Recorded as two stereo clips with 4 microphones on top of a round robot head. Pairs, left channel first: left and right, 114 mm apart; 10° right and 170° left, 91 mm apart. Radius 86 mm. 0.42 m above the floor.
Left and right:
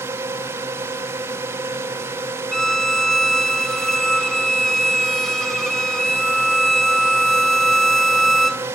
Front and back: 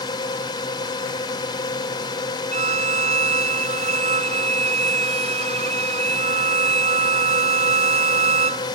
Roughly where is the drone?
Ahead right.